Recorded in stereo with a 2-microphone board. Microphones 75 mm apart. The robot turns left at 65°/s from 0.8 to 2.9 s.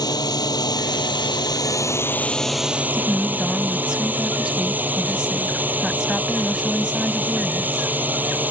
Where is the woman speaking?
10° right (ahead or behind).